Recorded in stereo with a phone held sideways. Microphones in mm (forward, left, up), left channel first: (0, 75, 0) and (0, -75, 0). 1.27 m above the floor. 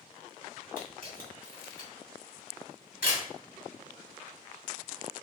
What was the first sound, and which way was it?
A camera shutter, 70° left (ahead or behind).